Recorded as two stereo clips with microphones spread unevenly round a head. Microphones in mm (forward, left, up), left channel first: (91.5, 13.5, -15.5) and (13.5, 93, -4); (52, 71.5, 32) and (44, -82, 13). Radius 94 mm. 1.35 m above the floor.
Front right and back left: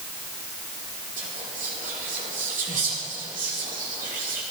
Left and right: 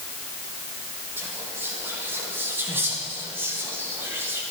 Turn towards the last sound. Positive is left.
turn(degrees=-170)